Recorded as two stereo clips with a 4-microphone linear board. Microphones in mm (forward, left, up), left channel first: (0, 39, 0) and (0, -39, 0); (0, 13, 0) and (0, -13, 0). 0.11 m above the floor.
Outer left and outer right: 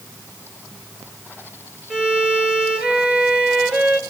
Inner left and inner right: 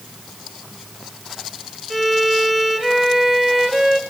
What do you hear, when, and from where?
1.9 s a violin: 15° right (ahead or behind), 1.0 m